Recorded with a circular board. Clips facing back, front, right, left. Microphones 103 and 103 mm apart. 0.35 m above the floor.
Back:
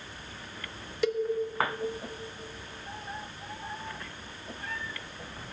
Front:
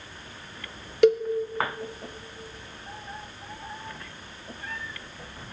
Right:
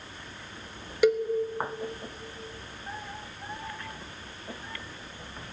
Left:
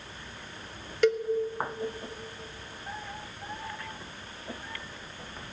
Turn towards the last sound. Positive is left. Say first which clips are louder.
# front 9 dB, right 2 dB
turn(degrees=-10)